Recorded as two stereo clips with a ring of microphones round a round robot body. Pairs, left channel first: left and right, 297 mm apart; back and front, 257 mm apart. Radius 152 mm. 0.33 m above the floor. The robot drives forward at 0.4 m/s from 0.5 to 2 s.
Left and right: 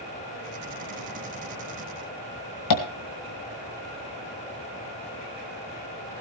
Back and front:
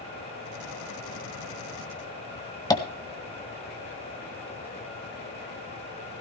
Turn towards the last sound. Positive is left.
turn(degrees=105)